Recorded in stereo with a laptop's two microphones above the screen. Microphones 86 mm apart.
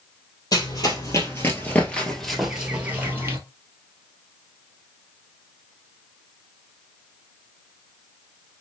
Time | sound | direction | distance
0.5 | running footsteps | 45° left (ahead or behind) | 1.4 m